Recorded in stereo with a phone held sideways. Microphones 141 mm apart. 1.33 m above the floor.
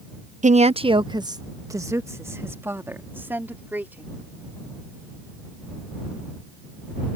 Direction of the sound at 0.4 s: 60° right (ahead or behind).